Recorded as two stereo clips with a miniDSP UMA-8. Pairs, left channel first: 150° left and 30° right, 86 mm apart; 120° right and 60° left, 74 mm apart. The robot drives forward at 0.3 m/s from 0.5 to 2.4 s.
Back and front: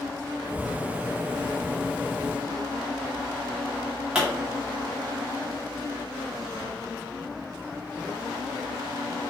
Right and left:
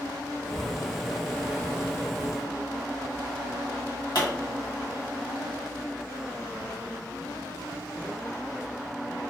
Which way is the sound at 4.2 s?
110° right.